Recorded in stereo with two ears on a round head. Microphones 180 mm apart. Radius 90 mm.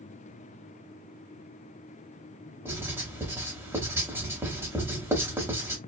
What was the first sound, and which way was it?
Writing, 15° right (ahead or behind).